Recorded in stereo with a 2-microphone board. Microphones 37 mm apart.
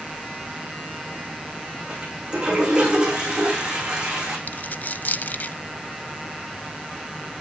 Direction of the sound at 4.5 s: 50° left (ahead or behind).